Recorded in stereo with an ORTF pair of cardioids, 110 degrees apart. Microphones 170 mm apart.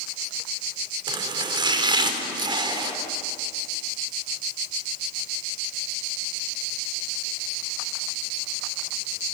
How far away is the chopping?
About 4 m.